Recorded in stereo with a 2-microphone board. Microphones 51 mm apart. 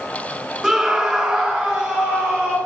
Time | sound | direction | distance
0.6 | a scream | 10° right (ahead or behind) | 1.1 m